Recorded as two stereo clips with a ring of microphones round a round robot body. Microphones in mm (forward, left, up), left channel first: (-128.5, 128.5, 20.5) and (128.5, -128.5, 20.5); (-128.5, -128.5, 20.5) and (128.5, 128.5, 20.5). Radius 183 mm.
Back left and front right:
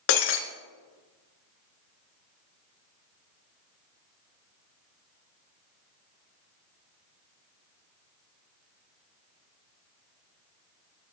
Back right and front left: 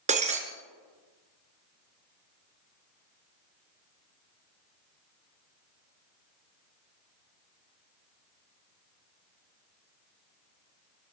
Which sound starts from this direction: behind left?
Breaking glass, at 0.1 s.